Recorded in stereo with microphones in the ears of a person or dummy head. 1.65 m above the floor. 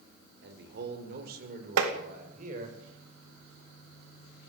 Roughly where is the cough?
No cough in this recording.